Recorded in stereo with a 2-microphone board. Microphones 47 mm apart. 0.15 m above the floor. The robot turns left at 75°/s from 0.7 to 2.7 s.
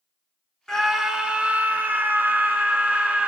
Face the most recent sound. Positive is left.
turn(degrees=-145)